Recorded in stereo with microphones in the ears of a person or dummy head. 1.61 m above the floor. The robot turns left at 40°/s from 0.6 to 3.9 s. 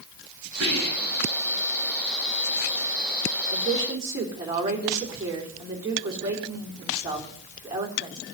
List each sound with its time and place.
0.6 s whispering: 90° right, 10 m; by 1.3 s 60° right (ahead or behind), 10 m
3.5 s a woman speaking: 40° right (ahead or behind), 3.5 m; by 8.2 s 25° right (ahead or behind), 3.5 m